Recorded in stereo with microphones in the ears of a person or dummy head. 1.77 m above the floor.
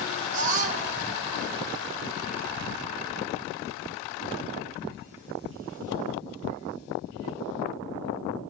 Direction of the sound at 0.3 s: 40° right (ahead or behind).